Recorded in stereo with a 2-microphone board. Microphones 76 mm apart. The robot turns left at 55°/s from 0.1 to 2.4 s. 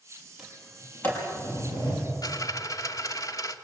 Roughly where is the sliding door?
Centre.